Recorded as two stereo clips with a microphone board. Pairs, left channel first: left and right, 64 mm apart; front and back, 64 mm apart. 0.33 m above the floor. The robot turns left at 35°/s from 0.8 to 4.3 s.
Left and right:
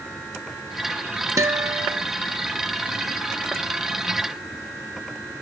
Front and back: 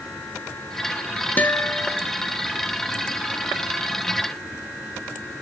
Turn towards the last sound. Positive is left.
turn(degrees=-160)